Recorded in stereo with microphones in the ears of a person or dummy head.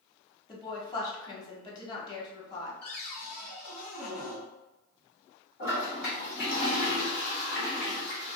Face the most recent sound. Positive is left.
turn(degrees=65)  # may be behind; listen again after turning